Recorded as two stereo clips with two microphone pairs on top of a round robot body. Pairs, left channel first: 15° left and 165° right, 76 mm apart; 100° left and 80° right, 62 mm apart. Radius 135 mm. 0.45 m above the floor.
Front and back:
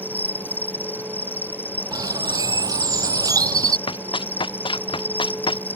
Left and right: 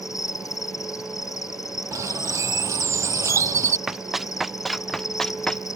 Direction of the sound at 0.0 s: 80° left.